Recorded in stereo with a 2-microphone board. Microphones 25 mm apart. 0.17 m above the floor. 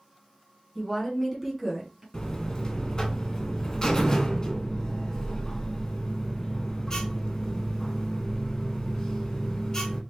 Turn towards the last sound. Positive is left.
turn(degrees=25)  # may be behind; listen again after turning